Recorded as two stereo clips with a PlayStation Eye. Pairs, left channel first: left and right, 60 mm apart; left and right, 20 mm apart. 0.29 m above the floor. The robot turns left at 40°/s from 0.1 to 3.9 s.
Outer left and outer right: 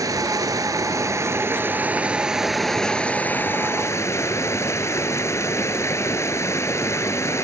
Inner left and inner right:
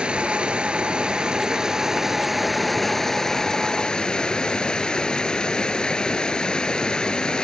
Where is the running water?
80° right, 1.1 m; by 7.5 s 130° left, 1.1 m.